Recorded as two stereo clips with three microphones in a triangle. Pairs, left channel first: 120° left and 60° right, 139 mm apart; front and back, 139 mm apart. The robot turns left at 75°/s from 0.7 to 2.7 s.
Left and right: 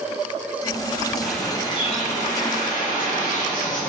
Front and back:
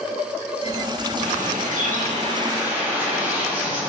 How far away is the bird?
About 1.6 m.